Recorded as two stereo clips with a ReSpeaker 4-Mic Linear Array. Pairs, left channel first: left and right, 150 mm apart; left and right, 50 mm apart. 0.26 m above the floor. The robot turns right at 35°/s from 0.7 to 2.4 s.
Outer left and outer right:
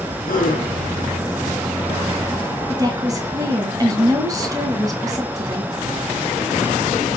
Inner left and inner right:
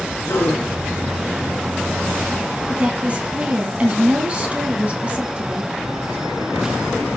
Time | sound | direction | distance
0.2 | a gasp | 75° left (ahead or behind) | 3.5 m
2.7 | a woman speaking | 25° right (ahead or behind) | 2.5 m